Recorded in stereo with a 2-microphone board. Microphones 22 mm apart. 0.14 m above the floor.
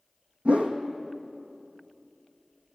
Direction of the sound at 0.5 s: 80° right.